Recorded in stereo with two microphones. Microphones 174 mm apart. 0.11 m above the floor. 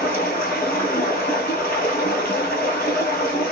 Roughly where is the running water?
Left.